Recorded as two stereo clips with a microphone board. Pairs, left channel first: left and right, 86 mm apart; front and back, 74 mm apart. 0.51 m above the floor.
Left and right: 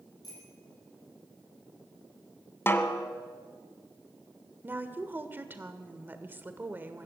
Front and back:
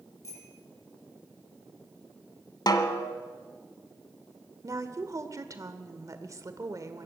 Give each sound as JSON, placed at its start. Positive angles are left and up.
{"t": 0.2, "sound": "a bicycle bell", "azimuth_deg": 50, "distance_m": 9.5}
{"t": 2.7, "sound": "a snare drum", "azimuth_deg": 25, "distance_m": 1.6}
{"t": 4.6, "sound": "a woman speaking", "azimuth_deg": -150, "distance_m": 1.7}